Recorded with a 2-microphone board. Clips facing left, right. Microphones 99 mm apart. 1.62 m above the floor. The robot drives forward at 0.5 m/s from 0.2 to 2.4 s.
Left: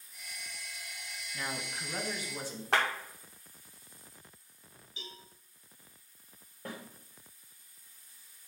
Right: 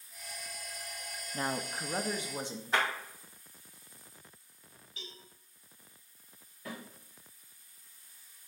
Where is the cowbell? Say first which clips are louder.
Left 1 dB; 20° left (ahead or behind), 2.5 m.